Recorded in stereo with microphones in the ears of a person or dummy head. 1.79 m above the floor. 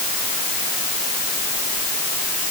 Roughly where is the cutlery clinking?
I don't hear cutlery clinking.